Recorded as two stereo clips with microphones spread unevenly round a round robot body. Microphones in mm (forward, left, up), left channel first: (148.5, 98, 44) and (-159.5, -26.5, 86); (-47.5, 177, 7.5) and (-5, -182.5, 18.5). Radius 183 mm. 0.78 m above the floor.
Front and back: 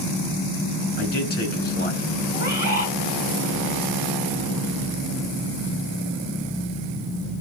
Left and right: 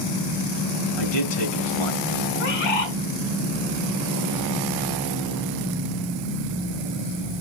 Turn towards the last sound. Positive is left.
turn(degrees=85)